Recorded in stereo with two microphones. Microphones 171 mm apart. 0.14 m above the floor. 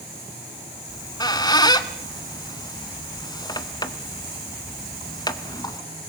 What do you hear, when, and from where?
0.9 s a squeak: 25° left (ahead or behind), 1.0 m